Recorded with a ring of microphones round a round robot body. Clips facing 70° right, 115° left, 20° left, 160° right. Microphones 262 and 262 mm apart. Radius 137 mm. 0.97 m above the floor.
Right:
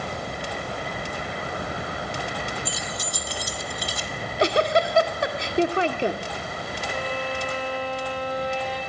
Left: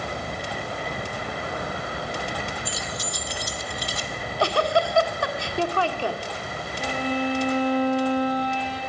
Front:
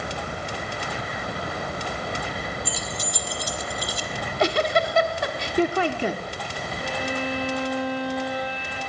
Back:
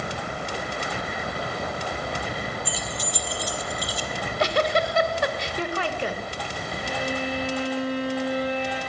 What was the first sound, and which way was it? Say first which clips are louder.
Keys jangling: even, even; 25° right.